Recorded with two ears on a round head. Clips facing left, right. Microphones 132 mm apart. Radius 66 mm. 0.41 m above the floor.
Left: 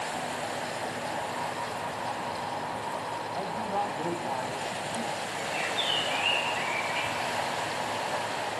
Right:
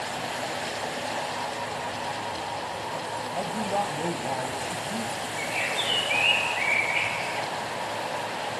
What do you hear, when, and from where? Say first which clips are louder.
3.4 s a man speaking: right 3 dB; 30° right (ahead or behind), 2.0 m; by 5.3 s 35° right (ahead or behind), 3 m
5.4 s a bird: right 1 dB; 15° right (ahead or behind), 0.8 m